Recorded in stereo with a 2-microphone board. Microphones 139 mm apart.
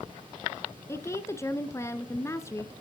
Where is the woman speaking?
20° left (ahead or behind), 1.0 m.